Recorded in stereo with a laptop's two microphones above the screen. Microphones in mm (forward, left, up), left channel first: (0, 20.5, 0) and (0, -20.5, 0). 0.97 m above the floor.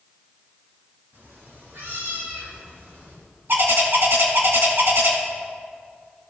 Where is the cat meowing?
80° right, 3 m; by 3.2 s 85° right, 4.5 m.